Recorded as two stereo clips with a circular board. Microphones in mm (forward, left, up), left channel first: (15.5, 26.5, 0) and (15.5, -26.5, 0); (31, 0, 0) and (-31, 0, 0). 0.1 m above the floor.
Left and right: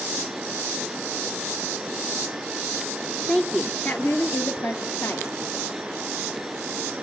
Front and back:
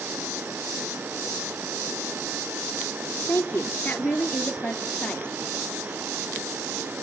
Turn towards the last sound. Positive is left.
turn(degrees=70)